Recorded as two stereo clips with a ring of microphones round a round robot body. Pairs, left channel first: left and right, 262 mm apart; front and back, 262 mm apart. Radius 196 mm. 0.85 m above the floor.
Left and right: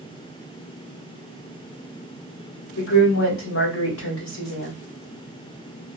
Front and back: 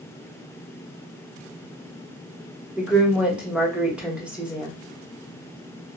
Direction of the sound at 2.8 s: 95° left.